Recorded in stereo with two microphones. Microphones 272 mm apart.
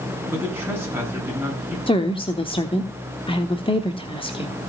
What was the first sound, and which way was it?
A man speaking, 10° right (ahead or behind).